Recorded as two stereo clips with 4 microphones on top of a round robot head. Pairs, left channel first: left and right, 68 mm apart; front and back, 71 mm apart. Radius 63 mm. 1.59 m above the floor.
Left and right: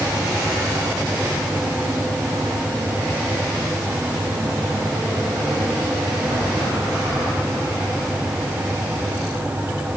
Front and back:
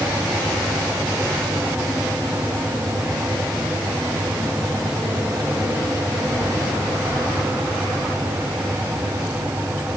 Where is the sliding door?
I don't hear a sliding door.